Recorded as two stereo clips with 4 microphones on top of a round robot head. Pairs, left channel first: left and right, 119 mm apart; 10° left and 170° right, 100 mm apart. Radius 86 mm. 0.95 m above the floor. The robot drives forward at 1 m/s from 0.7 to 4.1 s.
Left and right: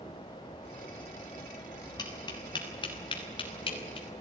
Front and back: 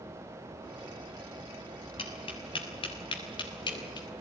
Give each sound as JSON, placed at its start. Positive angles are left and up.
{"t": 2.0, "sound": "tapping", "azimuth_deg": 35, "distance_m": 6.5}